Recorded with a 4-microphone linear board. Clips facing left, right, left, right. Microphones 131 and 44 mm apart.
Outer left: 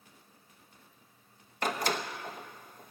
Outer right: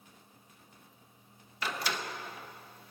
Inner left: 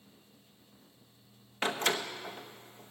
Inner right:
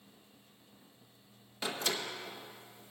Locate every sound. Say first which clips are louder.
1.6 s a door slam: outer left 4 dB, inner left 5 dB; 50° left (ahead or behind), 0.9 m